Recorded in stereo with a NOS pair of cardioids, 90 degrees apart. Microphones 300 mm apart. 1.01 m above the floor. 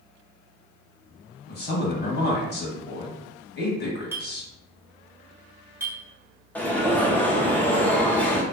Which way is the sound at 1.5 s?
35° left.